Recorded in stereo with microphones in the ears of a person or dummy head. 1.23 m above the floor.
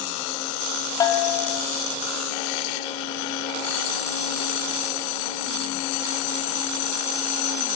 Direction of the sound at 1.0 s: 20° left (ahead or behind).